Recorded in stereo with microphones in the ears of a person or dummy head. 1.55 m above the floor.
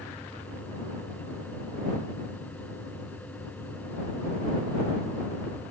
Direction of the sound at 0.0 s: 5° left (ahead or behind).